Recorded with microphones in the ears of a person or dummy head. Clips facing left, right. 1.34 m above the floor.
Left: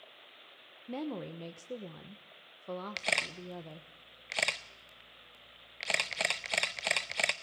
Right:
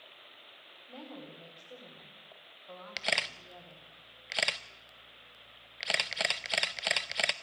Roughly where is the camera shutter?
Centre.